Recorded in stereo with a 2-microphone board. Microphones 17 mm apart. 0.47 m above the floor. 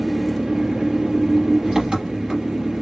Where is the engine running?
80° right, 3.5 m.